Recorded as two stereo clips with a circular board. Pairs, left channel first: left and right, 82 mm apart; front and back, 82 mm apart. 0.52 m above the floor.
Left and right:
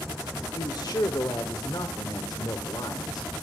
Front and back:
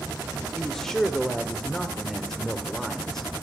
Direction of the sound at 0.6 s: 85° left.